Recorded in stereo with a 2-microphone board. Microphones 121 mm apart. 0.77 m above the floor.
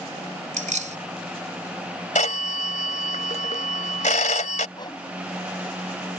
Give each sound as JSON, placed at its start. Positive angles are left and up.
{"t": 0.5, "sound": "keys jangling", "side_deg": -85}
{"t": 2.1, "sound": "a phone ringing", "side_deg": 85}
{"t": 4.8, "sound": "a whoosh", "side_deg": 35}